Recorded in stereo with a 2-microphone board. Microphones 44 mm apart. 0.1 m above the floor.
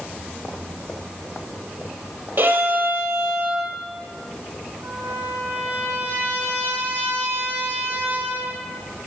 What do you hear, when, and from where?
2.4 s a violin: 55° right (ahead or behind), 1.6 m
4.8 s a trumpet: 70° right (ahead or behind), 3.5 m